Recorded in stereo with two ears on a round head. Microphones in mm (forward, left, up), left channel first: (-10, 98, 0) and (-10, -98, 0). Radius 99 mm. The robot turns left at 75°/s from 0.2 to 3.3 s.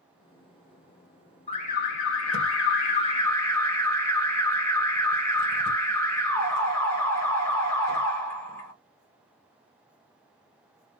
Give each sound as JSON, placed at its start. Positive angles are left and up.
{"t": 1.5, "sound": "an alarm", "azimuth_deg": 150, "distance_m": 1.7}